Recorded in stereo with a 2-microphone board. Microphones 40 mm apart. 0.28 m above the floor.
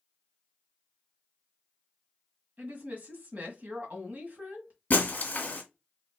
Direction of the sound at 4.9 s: 45° left (ahead or behind).